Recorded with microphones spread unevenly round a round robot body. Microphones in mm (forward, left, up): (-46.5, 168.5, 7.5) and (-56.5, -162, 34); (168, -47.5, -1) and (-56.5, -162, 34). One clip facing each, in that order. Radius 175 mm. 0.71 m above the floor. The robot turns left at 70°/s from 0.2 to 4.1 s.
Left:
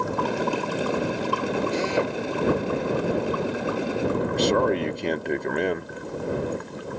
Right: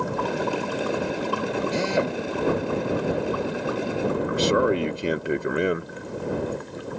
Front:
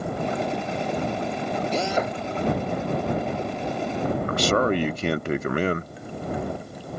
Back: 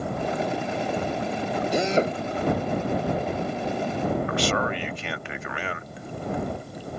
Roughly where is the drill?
Right.